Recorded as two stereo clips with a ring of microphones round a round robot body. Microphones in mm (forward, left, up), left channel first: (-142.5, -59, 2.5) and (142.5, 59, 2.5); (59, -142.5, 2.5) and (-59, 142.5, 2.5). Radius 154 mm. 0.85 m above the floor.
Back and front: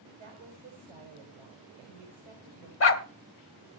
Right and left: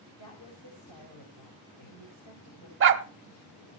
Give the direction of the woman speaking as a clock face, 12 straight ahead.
1 o'clock.